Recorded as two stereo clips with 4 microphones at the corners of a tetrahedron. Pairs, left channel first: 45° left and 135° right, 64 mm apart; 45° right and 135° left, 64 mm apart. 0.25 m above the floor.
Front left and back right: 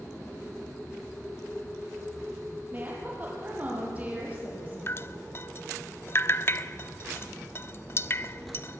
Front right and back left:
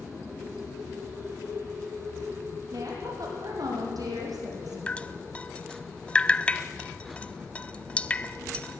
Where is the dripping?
20° left, 0.6 m.